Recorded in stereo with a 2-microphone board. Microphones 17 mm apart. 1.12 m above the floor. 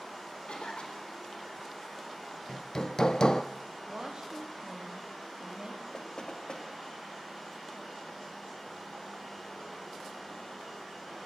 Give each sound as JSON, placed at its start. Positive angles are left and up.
{"t": 0.5, "sound": "a cough", "side_deg": 80, "distance_m": 4.0}
{"t": 2.5, "sound": "hammering", "side_deg": 45, "distance_m": 0.6}
{"t": 3.9, "sound": "a woman speaking", "side_deg": -50, "distance_m": 2.5}
{"t": 5.9, "sound": "knocking", "side_deg": 55, "distance_m": 2.0}